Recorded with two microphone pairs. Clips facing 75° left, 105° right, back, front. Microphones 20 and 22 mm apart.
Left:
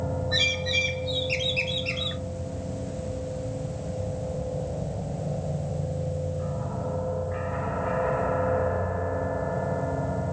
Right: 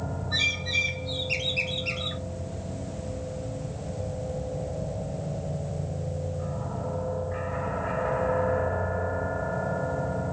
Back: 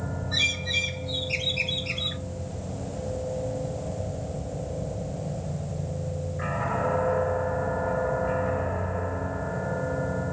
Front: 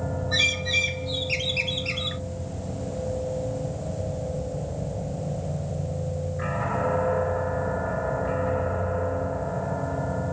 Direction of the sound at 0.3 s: 5° left.